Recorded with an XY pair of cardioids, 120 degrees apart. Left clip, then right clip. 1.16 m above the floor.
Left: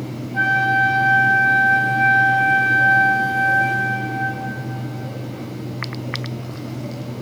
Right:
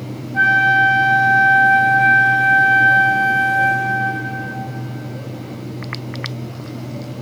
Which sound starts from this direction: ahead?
A flute, at 0.3 s.